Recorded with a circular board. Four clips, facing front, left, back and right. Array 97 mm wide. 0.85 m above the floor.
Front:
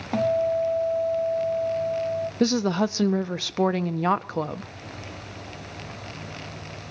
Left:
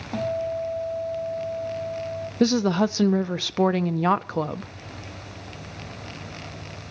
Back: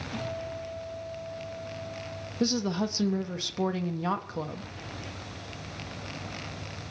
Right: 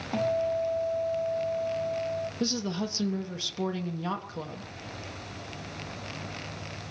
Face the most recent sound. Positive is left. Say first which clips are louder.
# left 16 dB, front 5 dB
turn(degrees=60)